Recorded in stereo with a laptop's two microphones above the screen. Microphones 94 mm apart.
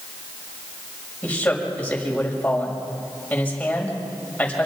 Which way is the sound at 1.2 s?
15° left (ahead or behind).